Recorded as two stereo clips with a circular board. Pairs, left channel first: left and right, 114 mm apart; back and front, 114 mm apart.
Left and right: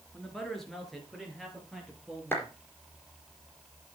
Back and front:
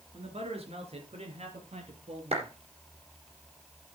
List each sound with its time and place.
0.1 s a man speaking: 5° left, 3.5 m; by 2.5 s 5° right, 5 m
2.3 s a clap: 15° left, 4.5 m